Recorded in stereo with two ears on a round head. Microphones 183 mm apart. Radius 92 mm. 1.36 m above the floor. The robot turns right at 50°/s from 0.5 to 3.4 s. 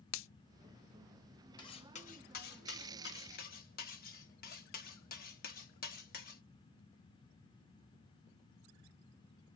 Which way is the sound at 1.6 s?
25° left.